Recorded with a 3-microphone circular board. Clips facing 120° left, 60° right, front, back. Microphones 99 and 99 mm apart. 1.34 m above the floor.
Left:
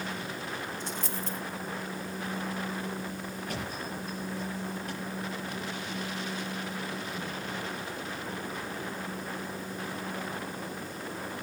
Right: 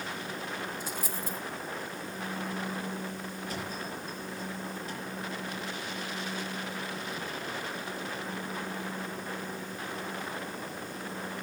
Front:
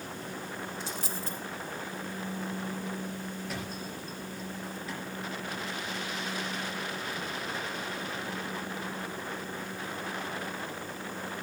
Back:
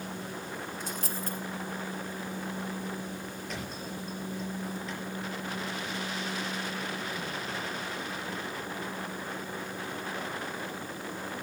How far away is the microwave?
I don't hear a microwave.